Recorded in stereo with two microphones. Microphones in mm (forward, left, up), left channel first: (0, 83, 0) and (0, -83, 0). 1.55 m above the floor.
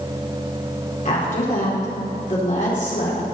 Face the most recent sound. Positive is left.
turn(degrees=50)  # may be behind; listen again after turning